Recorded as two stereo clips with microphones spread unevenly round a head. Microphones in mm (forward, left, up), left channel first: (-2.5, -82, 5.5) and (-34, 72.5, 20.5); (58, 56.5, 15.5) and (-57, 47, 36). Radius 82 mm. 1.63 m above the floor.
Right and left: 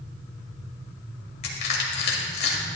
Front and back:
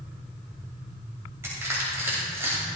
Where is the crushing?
100° right, 2 m.